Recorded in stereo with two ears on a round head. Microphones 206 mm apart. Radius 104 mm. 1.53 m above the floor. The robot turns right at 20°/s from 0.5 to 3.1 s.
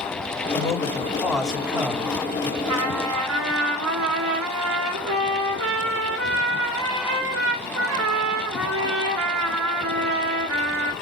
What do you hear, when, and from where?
0.5 s a man speaking: 165° left, 4.5 m; by 2.5 s 155° right, 4.5 m
2.6 s a trumpet: 75° right (ahead or behind), 3.5 m; by 10.9 s 65° right (ahead or behind), 3.5 m